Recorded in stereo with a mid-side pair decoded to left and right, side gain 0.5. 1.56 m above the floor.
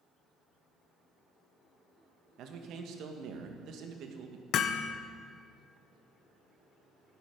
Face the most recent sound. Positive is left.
turn(degrees=65)